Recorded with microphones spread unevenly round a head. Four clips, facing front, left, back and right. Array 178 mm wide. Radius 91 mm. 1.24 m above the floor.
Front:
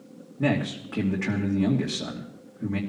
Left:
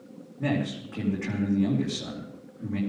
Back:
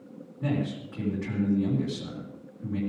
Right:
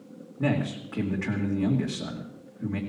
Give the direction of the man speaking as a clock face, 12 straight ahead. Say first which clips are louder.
Right 1 dB, front 4 dB; 12 o'clock.